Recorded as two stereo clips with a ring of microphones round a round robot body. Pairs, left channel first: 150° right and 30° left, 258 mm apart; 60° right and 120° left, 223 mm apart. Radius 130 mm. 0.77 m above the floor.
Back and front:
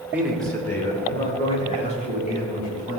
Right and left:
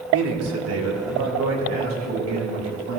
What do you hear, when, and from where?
0.1 s a man speaking: 115° left, 2.5 m; by 3.0 s 150° left, 5.5 m